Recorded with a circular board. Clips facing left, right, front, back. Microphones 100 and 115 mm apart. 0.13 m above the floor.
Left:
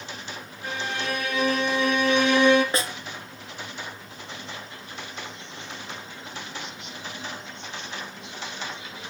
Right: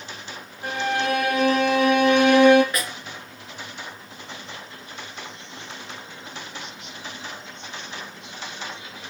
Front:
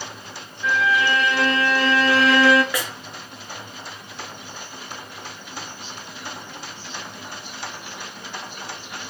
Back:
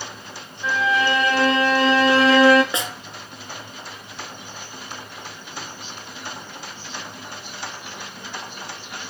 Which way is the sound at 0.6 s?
120° right.